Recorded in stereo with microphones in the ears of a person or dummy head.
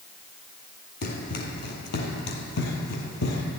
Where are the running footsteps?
55° left (ahead or behind), 3 m; by 3.4 s 60° left (ahead or behind), 3 m.